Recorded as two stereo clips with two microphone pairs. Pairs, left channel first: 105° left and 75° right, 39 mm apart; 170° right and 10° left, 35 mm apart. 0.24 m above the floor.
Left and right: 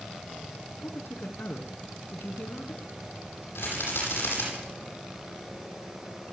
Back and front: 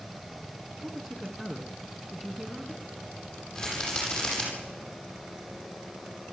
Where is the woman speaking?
95° left, 2.5 m.